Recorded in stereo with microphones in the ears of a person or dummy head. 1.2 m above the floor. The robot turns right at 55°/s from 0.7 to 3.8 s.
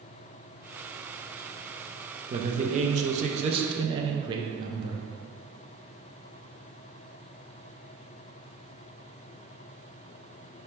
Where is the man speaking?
130° right, 0.5 m; by 5.1 s 45° right, 0.5 m.